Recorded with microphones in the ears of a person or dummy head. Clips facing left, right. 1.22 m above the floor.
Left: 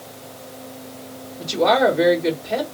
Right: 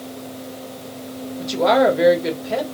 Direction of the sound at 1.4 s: 5° right (ahead or behind).